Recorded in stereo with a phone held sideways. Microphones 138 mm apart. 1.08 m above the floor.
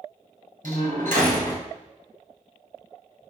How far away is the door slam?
About 5 m.